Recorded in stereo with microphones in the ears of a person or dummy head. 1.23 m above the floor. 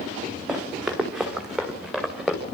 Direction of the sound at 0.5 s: Centre (ahead or behind).